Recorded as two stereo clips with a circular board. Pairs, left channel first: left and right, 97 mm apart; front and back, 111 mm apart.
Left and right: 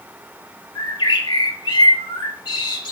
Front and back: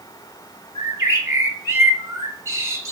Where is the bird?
115° left, 0.7 m.